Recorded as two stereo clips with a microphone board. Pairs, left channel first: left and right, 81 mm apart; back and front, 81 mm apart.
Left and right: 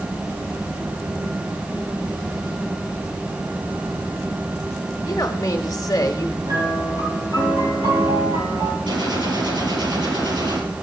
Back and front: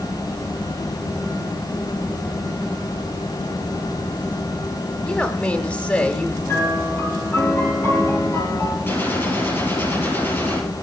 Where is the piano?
125° right, 5.5 m.